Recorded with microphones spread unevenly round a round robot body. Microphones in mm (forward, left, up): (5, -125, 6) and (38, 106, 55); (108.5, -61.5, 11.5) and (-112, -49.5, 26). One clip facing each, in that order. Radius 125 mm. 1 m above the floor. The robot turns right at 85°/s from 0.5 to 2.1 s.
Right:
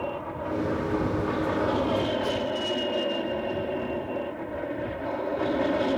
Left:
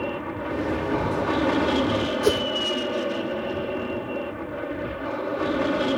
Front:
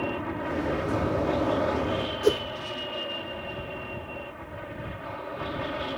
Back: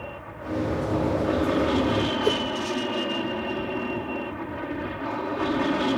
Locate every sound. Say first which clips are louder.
0.0 s an aircraft: left 3 dB, front 7 dB; 25° left; by 6.0 s 165° left
2.2 s a whoosh: left 8 dB, front 5 dB; 75° left